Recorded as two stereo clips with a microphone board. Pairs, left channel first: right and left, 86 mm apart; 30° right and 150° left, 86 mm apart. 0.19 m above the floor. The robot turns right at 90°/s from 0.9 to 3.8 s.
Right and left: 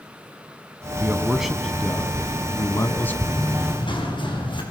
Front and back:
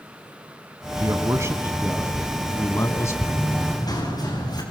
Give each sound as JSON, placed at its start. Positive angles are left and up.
{"t": 1.0, "sound": "a man speaking", "azimuth_deg": 130, "distance_m": 1.4}
{"t": 3.2, "sound": "running footsteps", "azimuth_deg": -125, "distance_m": 8.0}